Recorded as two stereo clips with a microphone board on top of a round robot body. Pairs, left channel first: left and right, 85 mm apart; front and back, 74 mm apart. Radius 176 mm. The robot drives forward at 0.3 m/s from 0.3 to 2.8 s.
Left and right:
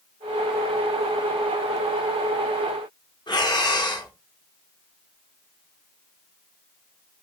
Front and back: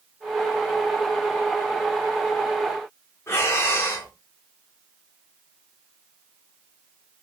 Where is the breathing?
55° left, 0.9 m.